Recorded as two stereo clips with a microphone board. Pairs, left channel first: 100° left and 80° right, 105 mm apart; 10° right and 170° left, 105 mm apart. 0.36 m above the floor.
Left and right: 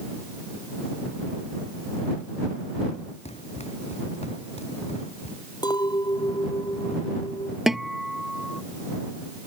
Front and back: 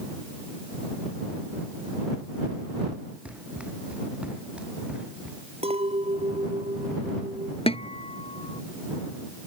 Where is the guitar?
10° left.